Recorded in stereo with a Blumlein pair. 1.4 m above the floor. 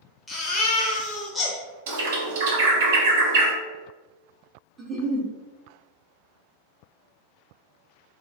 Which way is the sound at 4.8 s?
20° right.